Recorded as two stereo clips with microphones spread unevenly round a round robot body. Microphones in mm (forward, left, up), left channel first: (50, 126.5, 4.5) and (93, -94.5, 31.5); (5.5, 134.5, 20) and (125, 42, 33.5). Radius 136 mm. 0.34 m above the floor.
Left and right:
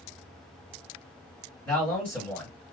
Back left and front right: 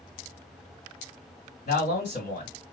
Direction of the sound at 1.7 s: Straight behind.